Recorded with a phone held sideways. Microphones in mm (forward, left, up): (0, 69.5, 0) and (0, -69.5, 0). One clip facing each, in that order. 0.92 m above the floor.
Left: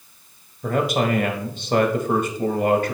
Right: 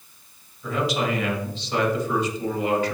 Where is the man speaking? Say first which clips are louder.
Left 4 dB; 50° left (ahead or behind), 1.1 m.